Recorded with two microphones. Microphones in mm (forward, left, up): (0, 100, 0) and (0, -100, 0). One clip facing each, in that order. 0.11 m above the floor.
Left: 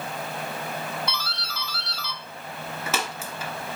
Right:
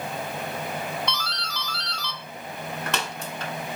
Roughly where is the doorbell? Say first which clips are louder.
Right 2 dB; centre.